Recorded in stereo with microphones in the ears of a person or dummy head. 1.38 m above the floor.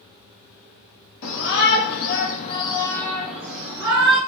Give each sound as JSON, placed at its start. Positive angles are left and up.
{"t": 1.2, "sound": "a shout", "side_deg": 70, "distance_m": 1.0}